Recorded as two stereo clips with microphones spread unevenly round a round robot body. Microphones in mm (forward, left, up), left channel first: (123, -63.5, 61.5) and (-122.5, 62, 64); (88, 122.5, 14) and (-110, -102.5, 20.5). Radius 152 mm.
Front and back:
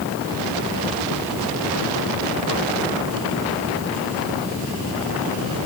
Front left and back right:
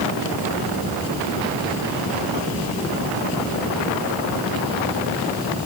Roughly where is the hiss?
I don't hear a hiss.